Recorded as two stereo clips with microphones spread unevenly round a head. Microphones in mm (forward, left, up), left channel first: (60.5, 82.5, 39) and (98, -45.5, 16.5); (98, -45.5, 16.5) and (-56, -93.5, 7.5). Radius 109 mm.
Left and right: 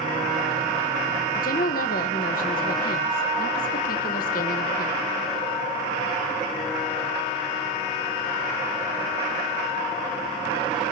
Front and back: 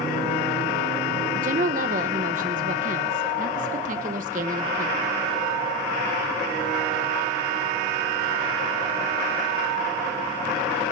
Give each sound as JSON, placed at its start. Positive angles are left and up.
{"t": 1.4, "sound": "a woman speaking", "azimuth_deg": 145, "distance_m": 1.1}